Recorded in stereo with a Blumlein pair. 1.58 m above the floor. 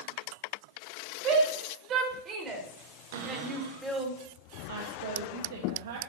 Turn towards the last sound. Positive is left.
turn(degrees=-55)